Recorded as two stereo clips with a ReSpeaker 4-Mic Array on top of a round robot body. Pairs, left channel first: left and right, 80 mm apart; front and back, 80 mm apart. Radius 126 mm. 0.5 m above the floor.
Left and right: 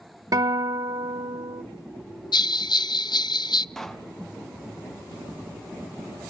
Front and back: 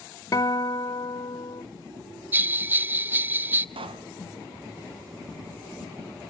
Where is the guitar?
50° right, 1.4 m.